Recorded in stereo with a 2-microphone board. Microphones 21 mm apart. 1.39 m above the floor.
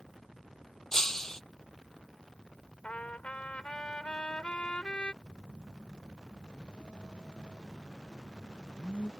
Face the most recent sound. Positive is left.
turn(degrees=80)